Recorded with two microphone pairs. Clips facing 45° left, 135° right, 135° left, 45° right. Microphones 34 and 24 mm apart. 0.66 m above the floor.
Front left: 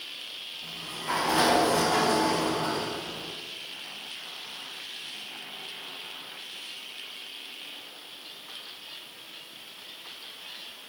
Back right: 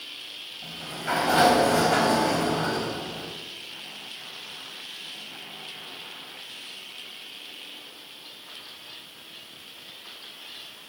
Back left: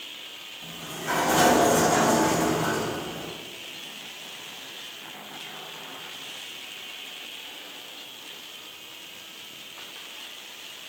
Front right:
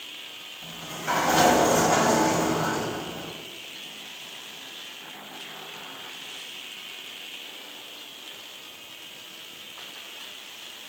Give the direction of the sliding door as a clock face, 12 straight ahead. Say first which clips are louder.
Back right 3 dB, front right 1 dB; 4 o'clock.